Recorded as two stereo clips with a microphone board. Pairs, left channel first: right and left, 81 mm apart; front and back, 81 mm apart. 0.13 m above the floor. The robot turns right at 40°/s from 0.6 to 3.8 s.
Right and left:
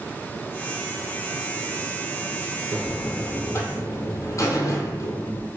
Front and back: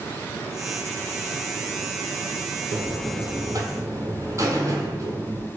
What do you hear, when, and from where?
2.7 s a buzzer: 175° right, 1.0 m; by 5.5 s 135° right, 1.0 m